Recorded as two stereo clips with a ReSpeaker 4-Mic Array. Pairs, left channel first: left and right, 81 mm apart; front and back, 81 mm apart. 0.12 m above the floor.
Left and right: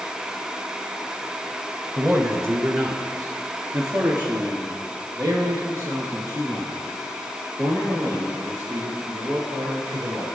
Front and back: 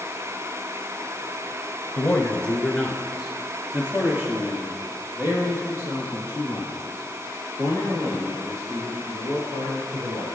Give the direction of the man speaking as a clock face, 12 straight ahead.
1 o'clock.